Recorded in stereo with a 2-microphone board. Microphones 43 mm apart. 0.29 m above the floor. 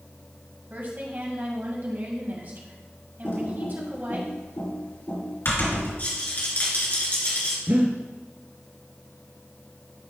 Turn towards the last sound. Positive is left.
turn(degrees=-45)  # may be behind; listen again after turning